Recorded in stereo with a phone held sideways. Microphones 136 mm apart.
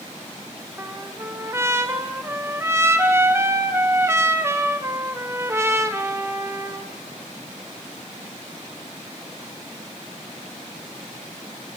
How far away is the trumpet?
About 0.8 m.